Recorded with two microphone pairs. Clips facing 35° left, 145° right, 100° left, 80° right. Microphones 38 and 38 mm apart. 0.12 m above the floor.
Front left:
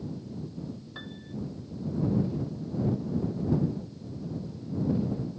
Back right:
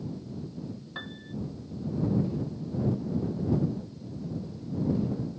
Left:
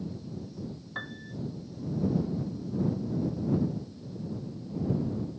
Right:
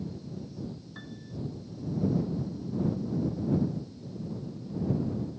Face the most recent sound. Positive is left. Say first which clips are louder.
# back right 2 dB, left 5 dB
turn(degrees=145)